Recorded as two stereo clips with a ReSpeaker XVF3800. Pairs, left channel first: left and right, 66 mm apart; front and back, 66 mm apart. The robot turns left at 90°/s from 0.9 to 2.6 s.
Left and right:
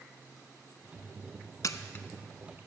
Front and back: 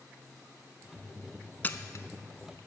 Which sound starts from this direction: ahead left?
A camera shutter, at 1.6 s.